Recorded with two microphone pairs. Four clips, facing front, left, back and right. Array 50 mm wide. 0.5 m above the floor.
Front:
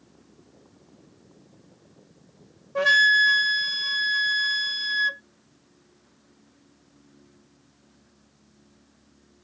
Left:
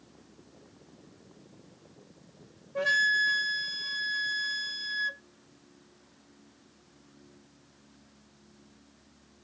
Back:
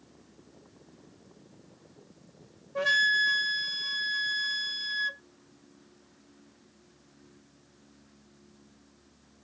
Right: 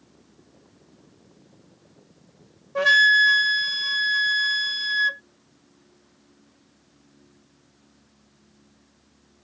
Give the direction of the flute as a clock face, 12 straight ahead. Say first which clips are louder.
Right 9 dB, front 7 dB; 2 o'clock.